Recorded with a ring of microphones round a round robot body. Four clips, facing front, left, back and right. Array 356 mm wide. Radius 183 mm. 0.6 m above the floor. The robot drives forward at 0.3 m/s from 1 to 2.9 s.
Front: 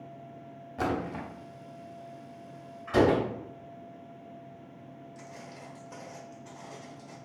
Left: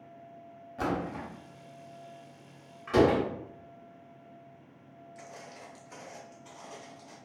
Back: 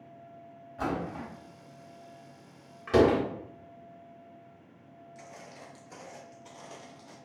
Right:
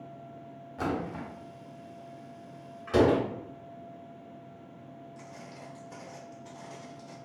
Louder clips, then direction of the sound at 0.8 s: Even, front 2 dB; straight ahead.